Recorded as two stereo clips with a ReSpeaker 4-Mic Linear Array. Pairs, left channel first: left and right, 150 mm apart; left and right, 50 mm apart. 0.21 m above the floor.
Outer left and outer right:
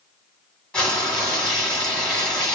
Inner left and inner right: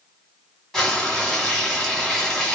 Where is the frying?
5° left (ahead or behind), 1.8 m.